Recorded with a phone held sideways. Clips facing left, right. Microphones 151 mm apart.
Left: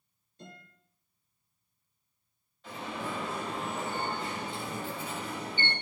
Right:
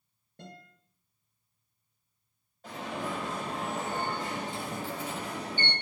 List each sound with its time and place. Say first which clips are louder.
0.4 s a guitar: right 2 dB; 65° right (ahead or behind), 6 m
2.6 s an alarm: right 2 dB; 45° right (ahead or behind), 6.5 m